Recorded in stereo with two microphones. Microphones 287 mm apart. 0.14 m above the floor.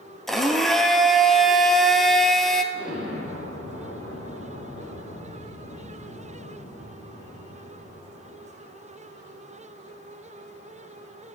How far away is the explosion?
About 3.5 m.